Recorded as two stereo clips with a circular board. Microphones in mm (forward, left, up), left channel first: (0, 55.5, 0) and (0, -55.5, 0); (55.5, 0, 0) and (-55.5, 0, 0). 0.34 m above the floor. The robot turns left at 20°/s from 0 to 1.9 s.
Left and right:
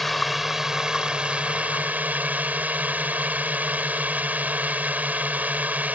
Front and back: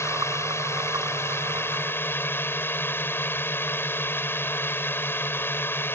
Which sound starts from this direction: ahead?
A drone, at 0.0 s.